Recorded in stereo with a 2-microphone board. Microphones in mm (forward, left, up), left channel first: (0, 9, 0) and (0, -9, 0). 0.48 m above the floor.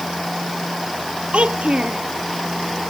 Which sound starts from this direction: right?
A child speaking, at 1.3 s.